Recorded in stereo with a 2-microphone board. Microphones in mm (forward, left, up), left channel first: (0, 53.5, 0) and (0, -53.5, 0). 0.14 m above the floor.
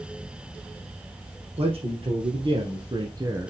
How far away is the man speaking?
About 3 m.